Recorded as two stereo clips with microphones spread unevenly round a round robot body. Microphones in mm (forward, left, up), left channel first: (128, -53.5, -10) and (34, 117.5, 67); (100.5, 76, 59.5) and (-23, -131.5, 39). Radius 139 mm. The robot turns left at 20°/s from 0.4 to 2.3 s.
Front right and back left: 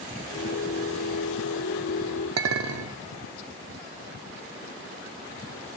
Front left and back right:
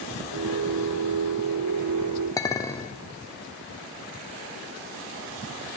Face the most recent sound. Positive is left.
turn(degrees=140)